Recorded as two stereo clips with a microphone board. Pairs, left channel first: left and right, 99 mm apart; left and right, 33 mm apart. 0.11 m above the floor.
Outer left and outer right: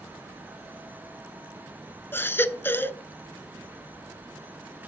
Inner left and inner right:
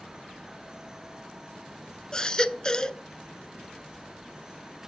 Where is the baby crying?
20° left (ahead or behind), 0.5 m.